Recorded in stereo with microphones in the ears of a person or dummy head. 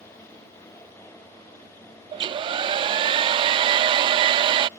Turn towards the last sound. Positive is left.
turn(degrees=-25)  # may be behind; listen again after turning